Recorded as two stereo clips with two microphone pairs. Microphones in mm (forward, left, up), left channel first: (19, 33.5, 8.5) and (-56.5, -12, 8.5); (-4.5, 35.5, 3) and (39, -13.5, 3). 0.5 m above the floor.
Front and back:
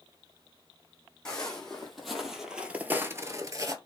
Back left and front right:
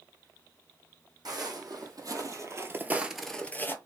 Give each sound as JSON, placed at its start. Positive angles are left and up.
{"t": 1.2, "sound": "footsteps", "azimuth_deg": -50, "distance_m": 1.4}